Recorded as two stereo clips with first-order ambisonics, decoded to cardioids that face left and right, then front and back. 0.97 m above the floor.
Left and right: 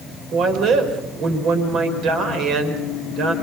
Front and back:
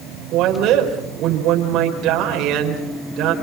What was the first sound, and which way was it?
A woman speaking, 140° right.